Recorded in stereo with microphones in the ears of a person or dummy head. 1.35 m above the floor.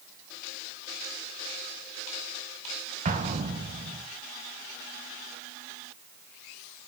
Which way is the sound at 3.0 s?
35° right (ahead or behind).